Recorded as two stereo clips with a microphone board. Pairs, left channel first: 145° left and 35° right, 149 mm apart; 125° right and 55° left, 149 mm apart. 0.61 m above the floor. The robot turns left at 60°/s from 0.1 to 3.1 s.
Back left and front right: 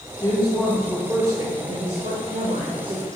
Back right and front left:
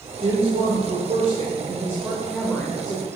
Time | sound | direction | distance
0.2 | a woman speaking | 90° left | 2.0 m